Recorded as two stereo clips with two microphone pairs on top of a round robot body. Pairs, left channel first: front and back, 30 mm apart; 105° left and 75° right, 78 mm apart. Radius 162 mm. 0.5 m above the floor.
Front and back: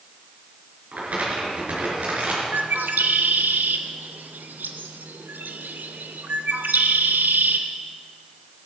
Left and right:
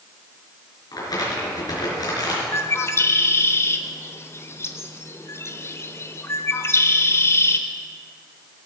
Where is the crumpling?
140° left, 4.5 m.